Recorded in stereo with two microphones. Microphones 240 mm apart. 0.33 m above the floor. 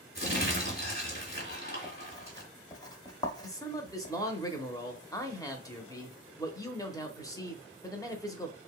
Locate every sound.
0.1 s crumpling: 40° left (ahead or behind), 2.5 m
1.5 s writing: 15° left (ahead or behind), 0.9 m
3.4 s a man speaking: 15° left (ahead or behind), 0.9 m